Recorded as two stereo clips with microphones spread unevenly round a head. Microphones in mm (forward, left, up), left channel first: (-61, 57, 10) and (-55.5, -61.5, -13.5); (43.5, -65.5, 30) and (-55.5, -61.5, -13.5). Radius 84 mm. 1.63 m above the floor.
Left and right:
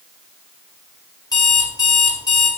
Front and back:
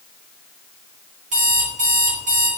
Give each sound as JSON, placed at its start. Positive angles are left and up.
{"t": 1.3, "sound": "an alarm clock", "azimuth_deg": 140, "distance_m": 2.5}